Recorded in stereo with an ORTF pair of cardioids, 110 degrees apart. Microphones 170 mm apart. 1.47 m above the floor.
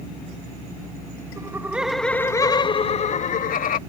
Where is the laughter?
20° right; by 3.8 s 55° left.